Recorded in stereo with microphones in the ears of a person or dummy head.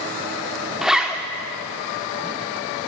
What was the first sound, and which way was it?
A zipper, 5° right (ahead or behind).